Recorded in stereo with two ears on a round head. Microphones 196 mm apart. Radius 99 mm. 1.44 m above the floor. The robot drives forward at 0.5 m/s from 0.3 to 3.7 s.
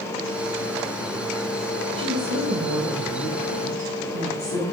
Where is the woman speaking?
75° left (ahead or behind), 3.5 m; by 4.6 s 65° left (ahead or behind), 4 m.